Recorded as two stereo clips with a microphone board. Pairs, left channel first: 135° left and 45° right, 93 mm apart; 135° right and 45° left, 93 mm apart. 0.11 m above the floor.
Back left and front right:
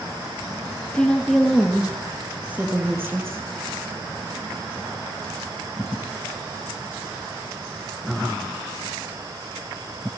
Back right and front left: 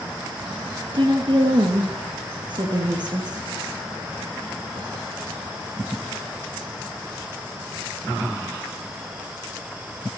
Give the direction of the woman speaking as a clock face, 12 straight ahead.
10 o'clock.